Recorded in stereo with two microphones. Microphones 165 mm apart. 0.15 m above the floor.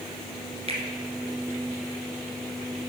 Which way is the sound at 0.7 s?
35° right (ahead or behind).